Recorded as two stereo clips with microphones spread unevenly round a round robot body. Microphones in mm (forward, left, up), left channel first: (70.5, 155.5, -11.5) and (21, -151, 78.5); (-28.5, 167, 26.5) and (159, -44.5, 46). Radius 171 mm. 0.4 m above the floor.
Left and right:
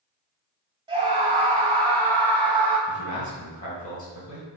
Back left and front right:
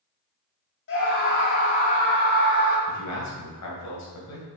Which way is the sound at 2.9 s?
135° left.